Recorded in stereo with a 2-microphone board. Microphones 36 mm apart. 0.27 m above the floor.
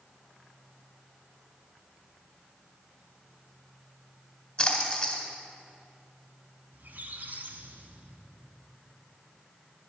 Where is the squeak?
60° right (ahead or behind), 0.9 m.